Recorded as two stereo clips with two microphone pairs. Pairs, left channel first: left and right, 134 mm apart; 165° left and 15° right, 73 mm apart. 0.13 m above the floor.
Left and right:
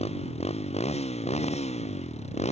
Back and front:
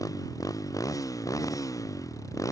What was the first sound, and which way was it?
A motorcycle, 125° left.